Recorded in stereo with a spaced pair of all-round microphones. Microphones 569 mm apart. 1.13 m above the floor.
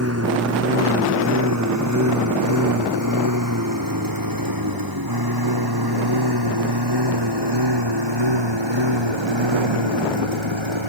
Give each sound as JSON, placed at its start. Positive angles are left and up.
{"t": 0.0, "sound": "a lawn mower", "side_deg": -25}